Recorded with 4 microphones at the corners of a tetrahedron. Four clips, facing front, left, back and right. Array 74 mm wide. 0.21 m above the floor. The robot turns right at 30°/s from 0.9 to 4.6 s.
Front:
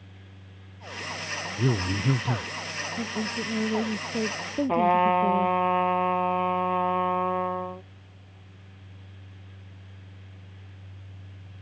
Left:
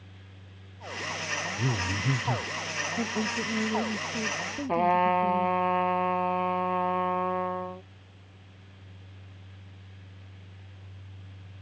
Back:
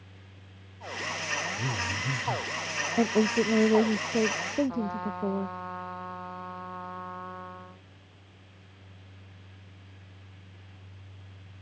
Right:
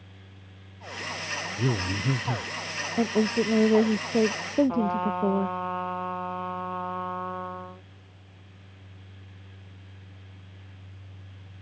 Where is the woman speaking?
145° right; by 5.6 s 95° right.